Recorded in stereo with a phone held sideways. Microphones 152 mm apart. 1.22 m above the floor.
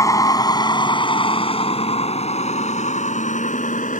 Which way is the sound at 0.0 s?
20° left (ahead or behind).